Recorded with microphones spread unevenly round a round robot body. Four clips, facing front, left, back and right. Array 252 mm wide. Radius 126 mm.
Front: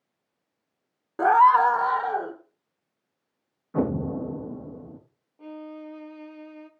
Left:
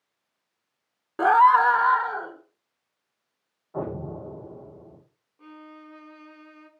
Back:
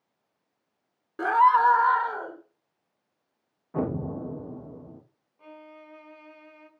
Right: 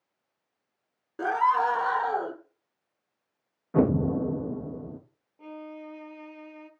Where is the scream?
65° left, 0.7 m; by 2.4 s 55° right, 0.9 m.